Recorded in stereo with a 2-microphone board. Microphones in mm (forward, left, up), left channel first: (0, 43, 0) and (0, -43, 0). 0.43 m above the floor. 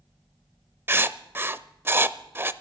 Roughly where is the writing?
Right.